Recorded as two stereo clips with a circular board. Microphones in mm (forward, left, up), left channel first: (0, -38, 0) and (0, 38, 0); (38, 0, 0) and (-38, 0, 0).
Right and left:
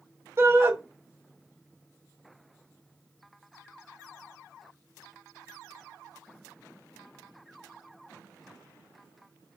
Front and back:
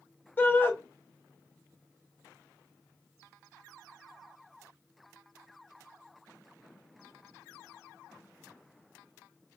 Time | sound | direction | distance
0.4 | a shout | 50° left | 1.0 m